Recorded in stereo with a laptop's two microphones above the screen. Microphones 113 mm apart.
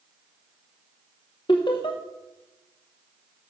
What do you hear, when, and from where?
1.5 s laughter: 45° left (ahead or behind), 0.8 m